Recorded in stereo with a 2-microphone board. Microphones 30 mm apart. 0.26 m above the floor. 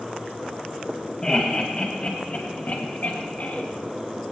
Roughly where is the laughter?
Left.